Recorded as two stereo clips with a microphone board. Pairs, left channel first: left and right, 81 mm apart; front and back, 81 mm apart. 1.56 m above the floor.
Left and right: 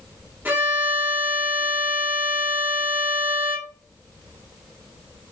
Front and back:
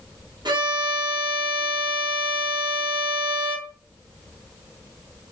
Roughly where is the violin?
Behind right.